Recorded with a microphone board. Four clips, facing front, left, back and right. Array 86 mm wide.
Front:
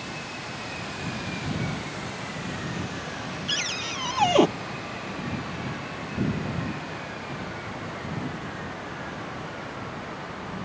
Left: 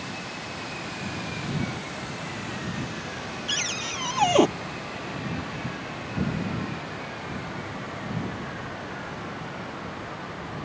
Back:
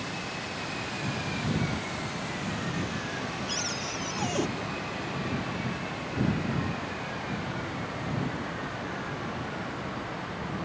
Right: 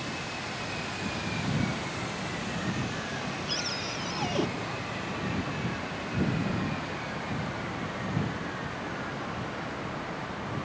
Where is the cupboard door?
45° left.